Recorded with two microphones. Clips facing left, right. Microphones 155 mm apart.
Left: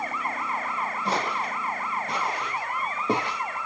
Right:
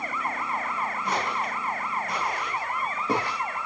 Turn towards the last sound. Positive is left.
turn(degrees=20)  # may be behind; listen again after turning